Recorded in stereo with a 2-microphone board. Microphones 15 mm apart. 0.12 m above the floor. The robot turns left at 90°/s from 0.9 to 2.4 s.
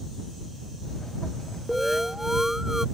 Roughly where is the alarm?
Centre.